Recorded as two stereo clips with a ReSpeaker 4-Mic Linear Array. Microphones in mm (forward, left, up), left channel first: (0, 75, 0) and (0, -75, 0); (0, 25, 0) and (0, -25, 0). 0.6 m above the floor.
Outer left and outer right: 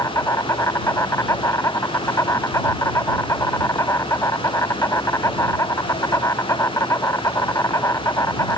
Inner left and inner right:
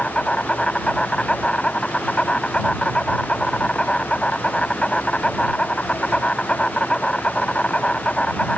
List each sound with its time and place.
0.0 s an insect: 20° left (ahead or behind)